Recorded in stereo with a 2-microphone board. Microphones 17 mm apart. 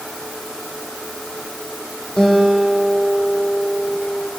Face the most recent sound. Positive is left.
turn(degrees=80)